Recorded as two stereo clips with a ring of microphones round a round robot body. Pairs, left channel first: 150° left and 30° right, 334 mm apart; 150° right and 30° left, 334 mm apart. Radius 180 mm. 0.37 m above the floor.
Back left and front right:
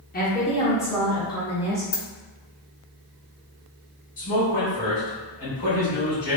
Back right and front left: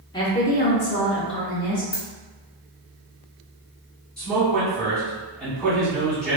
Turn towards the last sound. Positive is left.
turn(degrees=120)